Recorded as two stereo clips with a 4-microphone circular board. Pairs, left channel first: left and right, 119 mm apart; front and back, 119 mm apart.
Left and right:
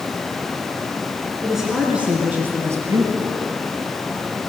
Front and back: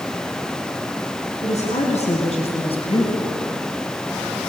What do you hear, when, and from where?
1.4 s a woman speaking: straight ahead, 4 m; by 3.5 s 45° right, 3 m